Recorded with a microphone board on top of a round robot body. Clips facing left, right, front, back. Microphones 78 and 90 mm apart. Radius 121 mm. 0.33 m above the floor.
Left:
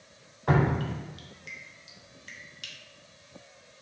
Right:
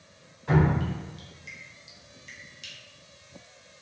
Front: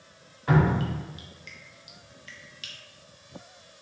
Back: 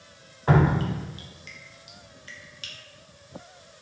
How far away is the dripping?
About 0.5 m.